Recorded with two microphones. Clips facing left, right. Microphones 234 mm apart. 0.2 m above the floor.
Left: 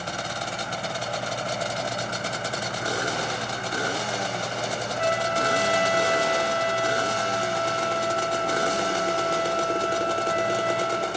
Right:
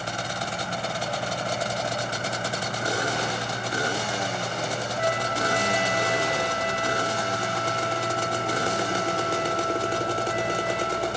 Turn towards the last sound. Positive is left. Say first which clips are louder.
# left 2 dB
turn(degrees=-45)  # may be behind; listen again after turning